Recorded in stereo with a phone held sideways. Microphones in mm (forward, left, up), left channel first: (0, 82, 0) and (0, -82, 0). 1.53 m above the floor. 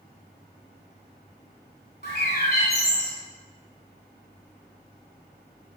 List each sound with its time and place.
2.0 s a bird: 65° left (ahead or behind), 3 m